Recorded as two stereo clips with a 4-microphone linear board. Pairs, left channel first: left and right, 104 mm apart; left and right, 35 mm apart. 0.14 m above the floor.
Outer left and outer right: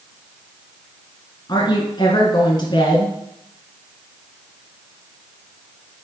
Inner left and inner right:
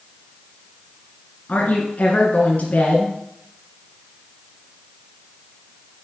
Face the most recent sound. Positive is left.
turn(degrees=45)  # may be behind; listen again after turning